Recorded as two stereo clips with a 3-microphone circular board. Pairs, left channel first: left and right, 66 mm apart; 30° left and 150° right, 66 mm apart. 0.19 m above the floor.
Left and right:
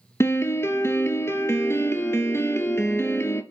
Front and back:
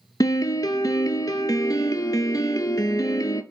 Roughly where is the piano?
Ahead left.